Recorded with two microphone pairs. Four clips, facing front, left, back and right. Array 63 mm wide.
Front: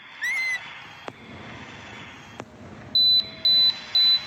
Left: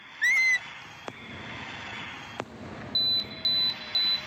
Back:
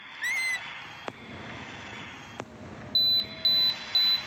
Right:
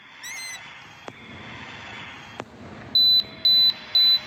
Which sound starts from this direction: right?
An alarm, at 3.0 s.